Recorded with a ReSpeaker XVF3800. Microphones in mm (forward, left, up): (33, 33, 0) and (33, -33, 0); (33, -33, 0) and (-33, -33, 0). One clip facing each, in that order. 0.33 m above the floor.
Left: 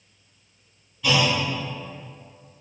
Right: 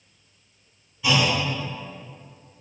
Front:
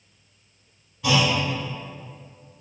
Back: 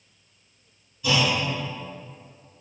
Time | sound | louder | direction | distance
1.0 | a clunk | even, front 2 dB | 10° right | 0.9 m